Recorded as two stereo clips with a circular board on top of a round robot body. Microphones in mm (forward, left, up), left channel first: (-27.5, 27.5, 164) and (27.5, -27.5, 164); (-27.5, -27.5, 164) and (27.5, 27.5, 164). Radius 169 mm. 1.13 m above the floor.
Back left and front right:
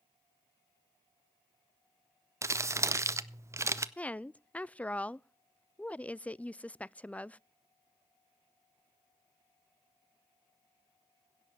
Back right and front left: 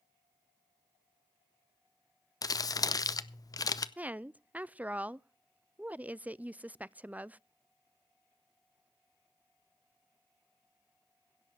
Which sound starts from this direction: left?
A woman speaking, at 4.0 s.